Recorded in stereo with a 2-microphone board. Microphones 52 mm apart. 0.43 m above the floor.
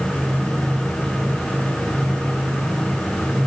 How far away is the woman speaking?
No woman speaking in this recording.